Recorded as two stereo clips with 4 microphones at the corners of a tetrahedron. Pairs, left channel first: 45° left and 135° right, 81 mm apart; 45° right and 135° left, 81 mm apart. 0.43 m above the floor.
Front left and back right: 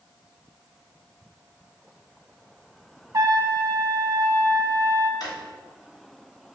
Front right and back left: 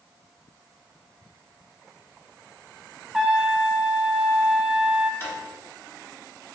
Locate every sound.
3.1 s a trumpet: 145° right, 0.5 m
5.2 s a drawer: 10° left, 1.2 m